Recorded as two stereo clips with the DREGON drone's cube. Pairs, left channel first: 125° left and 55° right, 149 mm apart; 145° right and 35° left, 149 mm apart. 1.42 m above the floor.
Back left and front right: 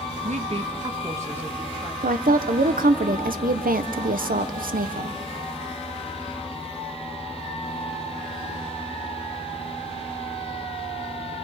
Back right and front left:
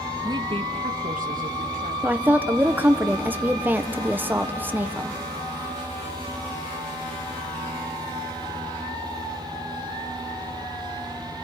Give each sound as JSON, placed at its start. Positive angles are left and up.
{"t": 0.2, "sound": "a woman speaking", "azimuth_deg": -30, "distance_m": 0.9}
{"t": 2.0, "sound": "a woman speaking", "azimuth_deg": -45, "distance_m": 1.0}